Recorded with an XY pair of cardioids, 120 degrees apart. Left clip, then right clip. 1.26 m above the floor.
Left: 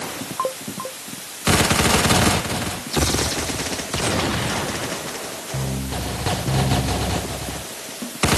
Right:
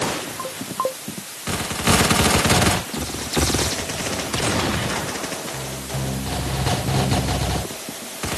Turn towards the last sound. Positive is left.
No sound to turn to.